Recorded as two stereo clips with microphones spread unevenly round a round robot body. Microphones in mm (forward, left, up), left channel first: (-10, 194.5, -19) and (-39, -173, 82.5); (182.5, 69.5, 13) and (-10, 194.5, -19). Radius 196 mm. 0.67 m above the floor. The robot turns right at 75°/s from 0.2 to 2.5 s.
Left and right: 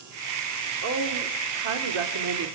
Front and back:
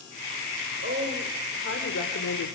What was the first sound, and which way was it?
A woman speaking, 160° right.